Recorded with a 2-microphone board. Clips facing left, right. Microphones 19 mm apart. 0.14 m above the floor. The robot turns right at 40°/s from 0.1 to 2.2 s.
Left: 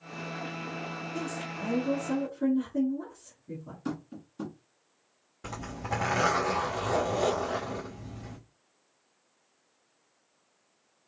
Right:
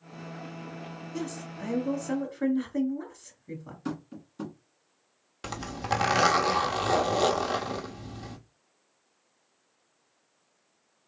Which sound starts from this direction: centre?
Tapping, at 3.9 s.